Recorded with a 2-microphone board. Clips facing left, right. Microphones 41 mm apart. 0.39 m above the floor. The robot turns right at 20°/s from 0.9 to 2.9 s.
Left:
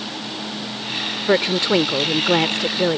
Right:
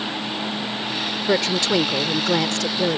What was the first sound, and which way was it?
A woman speaking, 20° left (ahead or behind).